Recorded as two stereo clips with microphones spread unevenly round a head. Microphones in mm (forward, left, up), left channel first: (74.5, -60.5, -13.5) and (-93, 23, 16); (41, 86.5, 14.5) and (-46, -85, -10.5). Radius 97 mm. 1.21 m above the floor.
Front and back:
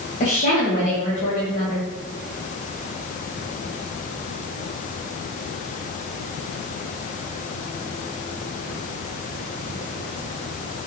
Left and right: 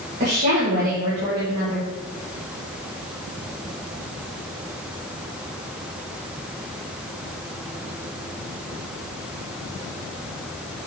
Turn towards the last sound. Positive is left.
turn(degrees=-75)